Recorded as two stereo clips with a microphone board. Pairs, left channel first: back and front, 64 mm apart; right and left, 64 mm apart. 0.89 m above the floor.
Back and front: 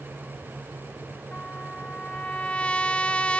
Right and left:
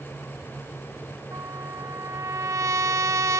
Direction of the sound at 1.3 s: 110° left.